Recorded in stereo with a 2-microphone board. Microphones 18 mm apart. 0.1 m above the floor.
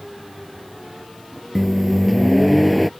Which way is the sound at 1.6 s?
Centre (ahead or behind).